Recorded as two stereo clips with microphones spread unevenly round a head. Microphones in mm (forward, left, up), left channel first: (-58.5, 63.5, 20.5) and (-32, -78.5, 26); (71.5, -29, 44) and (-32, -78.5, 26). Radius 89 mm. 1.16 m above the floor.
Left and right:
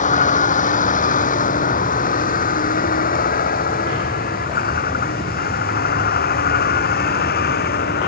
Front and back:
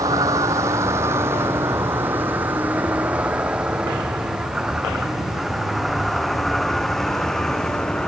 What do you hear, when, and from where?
0.0 s a vehicle: 135° left; by 8.1 s 110° left